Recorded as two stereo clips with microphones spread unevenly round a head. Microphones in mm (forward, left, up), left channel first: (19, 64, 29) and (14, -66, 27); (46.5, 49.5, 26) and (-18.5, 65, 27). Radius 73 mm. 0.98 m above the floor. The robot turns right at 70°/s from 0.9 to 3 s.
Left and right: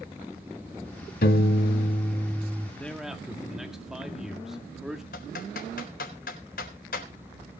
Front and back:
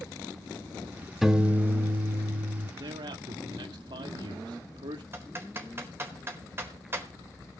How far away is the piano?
About 1.1 m.